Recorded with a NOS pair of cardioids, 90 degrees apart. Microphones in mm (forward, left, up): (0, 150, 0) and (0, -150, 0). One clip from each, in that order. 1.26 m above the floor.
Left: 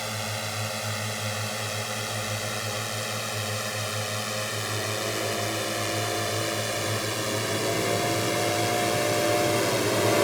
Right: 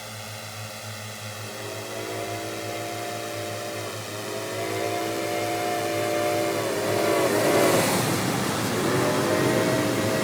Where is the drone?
50° left; by 10.2 s 40° left.